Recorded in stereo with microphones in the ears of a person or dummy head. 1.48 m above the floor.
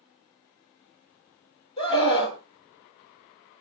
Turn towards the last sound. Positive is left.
turn(degrees=35)  # may be behind; listen again after turning